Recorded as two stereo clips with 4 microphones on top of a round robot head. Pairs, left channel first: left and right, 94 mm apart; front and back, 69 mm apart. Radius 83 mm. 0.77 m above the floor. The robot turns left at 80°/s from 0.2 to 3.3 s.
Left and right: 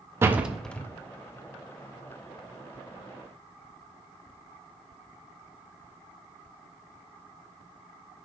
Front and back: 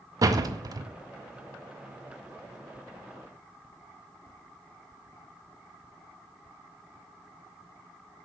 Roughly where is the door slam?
Behind right.